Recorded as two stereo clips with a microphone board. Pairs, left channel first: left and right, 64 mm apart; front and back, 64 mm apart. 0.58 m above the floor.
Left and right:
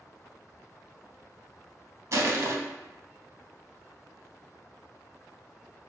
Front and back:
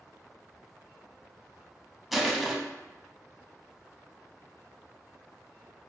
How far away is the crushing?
About 0.6 m.